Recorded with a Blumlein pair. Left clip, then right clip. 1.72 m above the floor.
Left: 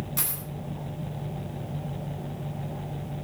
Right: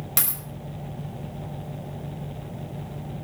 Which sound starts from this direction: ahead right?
A dropped coin, at 0.2 s.